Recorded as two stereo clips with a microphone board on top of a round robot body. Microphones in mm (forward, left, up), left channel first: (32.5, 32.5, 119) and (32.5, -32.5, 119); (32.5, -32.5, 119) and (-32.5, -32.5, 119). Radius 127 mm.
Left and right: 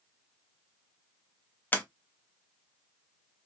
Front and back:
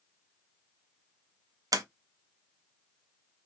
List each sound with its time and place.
1.7 s a sliding door: 155° left, 0.6 m